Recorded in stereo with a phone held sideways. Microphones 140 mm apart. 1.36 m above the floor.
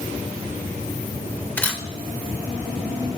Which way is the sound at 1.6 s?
10° left (ahead or behind).